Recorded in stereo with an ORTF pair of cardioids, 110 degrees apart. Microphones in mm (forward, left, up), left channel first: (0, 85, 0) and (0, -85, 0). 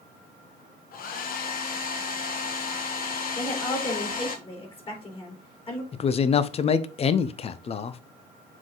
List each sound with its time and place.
0.9 s a hair dryer: 60° left, 1.2 m
3.4 s a woman speaking: 35° left, 3.5 m
5.9 s a man speaking: 35° left, 0.6 m